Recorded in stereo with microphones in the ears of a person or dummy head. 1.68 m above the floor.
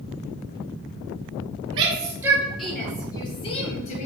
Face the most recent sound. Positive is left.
turn(degrees=45)  # may be behind; listen again after turning